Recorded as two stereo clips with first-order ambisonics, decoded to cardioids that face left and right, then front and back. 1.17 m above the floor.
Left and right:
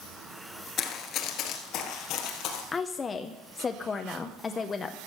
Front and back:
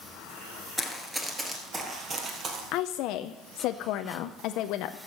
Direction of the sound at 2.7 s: 20° left.